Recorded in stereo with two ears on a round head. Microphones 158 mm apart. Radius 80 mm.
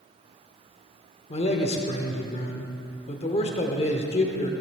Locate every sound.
1.3 s a man speaking: 35° left (ahead or behind), 1.0 m